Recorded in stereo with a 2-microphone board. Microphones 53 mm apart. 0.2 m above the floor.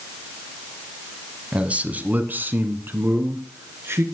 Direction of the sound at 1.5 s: 25° right (ahead or behind).